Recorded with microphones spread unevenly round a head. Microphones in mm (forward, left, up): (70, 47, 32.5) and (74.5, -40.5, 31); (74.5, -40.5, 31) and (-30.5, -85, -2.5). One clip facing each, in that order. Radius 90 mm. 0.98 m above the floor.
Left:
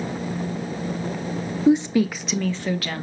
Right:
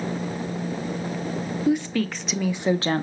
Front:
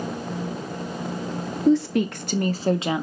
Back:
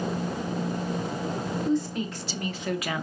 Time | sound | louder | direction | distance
1.7 | a woman speaking | left 6 dB, front 10 dB | 35° left | 0.9 m